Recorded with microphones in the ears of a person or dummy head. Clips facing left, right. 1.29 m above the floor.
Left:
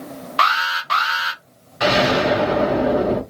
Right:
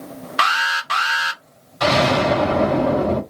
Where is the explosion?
15° left (ahead or behind), 0.9 m.